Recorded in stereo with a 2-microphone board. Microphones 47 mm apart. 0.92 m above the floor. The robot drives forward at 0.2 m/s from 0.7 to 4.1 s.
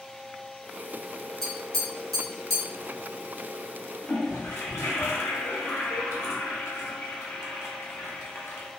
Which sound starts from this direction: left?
A toilet flushing, at 4.0 s.